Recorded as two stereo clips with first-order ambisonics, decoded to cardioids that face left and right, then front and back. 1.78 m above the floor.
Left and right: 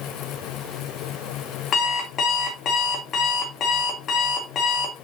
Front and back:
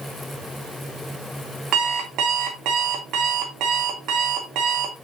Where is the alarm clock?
145° left, 2 m.